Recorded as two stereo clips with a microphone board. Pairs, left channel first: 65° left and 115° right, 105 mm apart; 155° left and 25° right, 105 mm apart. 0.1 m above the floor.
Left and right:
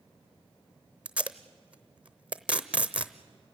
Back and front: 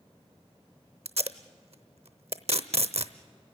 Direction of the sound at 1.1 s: 35° right.